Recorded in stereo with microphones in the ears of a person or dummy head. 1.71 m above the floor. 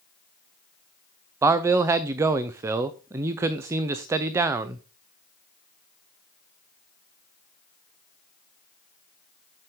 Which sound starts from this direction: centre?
A man speaking, at 1.4 s.